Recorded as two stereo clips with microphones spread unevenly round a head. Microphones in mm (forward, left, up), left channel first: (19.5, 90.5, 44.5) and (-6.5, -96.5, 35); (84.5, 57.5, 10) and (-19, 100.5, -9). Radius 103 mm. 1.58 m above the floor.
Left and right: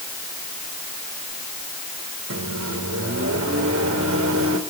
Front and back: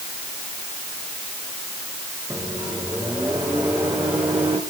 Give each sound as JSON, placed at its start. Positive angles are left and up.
{"t": 2.3, "sound": "a microwave", "azimuth_deg": -120, "distance_m": 4.0}